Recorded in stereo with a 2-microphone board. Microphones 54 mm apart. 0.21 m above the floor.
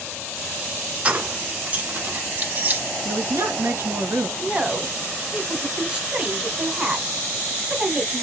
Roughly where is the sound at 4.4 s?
Right.